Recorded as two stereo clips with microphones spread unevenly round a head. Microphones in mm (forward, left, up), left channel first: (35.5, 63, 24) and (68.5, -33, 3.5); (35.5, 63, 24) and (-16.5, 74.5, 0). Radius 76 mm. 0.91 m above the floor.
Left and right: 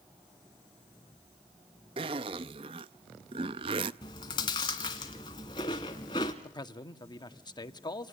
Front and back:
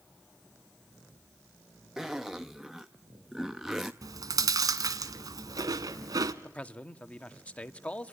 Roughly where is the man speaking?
Ahead left.